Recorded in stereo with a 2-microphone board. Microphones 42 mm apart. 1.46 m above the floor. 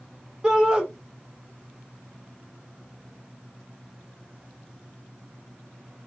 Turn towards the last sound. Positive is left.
turn(degrees=-20)  # may be behind; listen again after turning